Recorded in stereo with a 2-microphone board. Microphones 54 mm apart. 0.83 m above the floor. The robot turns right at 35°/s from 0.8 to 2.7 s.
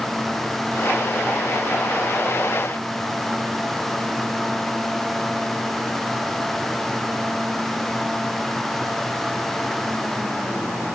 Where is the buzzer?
I don't hear a buzzer.